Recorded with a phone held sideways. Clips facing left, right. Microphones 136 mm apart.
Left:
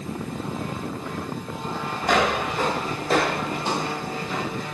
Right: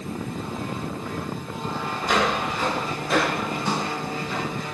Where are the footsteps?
55° left (ahead or behind), 1.8 m; by 4.7 s centre (ahead or behind), 2.0 m.